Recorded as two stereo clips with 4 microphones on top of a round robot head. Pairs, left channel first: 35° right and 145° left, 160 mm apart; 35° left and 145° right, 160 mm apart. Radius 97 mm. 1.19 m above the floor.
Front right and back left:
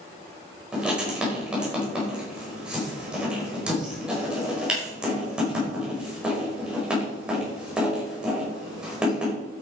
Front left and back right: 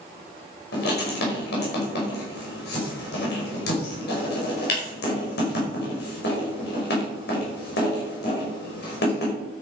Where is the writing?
60° left, 5 m.